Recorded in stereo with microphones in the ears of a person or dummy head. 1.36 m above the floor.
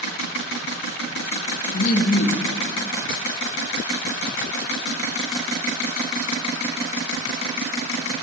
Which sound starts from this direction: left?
Laughter, at 1.7 s.